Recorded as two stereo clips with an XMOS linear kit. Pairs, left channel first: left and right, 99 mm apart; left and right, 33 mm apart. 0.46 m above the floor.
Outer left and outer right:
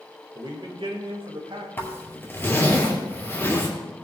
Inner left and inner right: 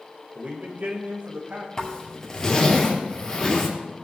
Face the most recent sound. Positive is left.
turn(degrees=20)  # may be behind; listen again after turning